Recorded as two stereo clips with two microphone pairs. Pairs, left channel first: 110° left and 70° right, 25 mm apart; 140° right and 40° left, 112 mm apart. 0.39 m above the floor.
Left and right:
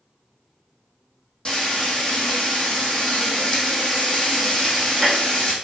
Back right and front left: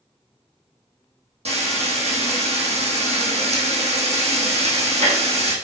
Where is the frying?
50° left, 2.5 m.